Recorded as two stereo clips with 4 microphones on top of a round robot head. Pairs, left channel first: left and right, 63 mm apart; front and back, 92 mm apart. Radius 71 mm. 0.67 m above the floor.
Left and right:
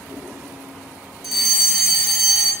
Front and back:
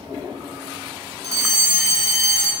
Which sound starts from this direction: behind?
A fire alarm, at 1.2 s.